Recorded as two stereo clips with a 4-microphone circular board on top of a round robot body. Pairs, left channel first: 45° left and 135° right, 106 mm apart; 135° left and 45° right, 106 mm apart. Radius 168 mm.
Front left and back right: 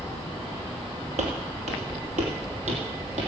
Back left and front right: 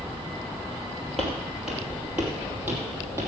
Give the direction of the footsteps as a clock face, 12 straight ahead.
5 o'clock.